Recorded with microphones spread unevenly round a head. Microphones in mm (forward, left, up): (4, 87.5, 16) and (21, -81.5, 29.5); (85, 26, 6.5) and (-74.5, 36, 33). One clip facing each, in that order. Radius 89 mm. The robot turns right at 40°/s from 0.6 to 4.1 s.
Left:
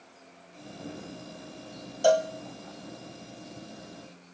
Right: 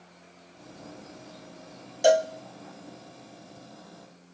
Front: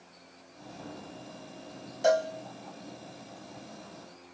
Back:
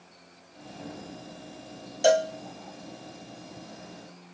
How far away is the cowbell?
About 0.6 m.